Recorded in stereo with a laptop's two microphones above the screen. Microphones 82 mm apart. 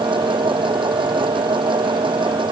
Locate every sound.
0.0 s a machine running: 90° right